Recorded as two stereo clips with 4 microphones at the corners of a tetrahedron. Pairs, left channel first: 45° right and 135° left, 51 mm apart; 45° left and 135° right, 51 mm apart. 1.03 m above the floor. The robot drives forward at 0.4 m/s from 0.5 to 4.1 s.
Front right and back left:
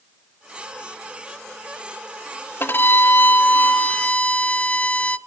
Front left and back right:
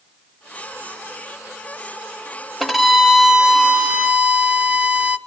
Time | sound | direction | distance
2.6 | a violin | 45° right | 1.1 m